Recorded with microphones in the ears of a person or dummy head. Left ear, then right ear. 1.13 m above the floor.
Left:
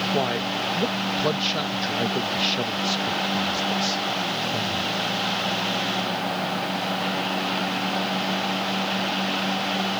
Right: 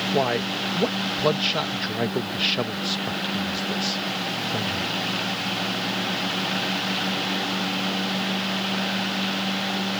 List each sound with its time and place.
0.1 s a man speaking: 15° right (ahead or behind)